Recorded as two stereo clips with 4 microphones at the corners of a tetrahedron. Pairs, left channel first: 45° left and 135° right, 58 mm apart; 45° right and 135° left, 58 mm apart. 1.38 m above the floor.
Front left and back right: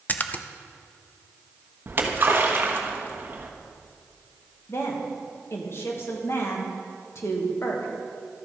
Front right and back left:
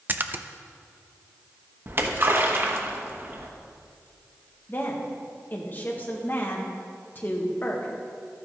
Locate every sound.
0.1 s a splash: 90° left, 0.5 m
1.9 s a splash: straight behind, 1.2 m
4.7 s a woman speaking: 10° left, 1.9 m